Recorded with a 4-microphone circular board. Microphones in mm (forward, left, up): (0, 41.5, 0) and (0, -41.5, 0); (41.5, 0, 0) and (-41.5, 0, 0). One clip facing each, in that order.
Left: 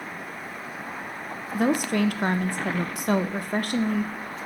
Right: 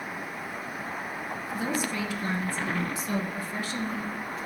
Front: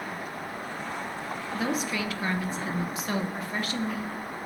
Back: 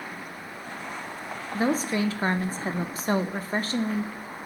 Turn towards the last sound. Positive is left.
turn(degrees=125)